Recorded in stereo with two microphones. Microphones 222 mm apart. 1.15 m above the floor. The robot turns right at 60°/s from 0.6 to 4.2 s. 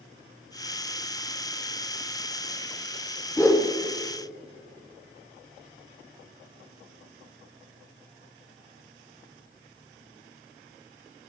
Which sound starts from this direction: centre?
A whoosh, at 3.4 s.